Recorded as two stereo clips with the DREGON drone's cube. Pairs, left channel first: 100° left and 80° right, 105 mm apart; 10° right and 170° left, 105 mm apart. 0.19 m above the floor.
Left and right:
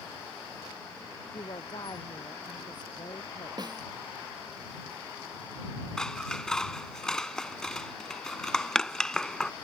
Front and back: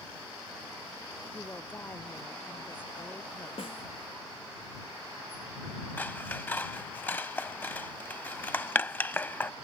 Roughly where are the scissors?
Ahead left.